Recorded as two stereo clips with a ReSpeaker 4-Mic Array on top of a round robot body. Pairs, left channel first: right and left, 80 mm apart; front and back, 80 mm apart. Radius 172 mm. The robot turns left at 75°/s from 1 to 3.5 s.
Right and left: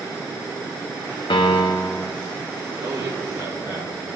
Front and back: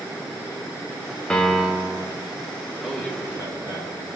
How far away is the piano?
About 1.1 m.